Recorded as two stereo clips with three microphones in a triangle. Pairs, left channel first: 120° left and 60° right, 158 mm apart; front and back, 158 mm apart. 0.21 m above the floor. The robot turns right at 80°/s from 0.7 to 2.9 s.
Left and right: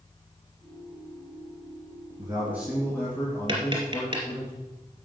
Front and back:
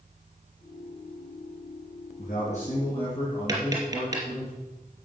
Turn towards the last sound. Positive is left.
turn(degrees=-115)